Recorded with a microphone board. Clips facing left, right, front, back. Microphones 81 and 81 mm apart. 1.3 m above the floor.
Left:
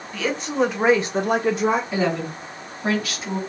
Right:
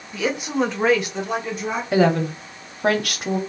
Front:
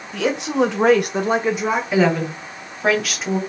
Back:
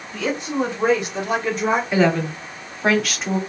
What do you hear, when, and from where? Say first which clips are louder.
0.1 s a woman speaking: even, front 4 dB; 15° right, 1.2 m; by 1.8 s 90° left, 0.9 m
1.9 s a woman speaking: right 5 dB, front 1 dB; 90° right, 1.0 m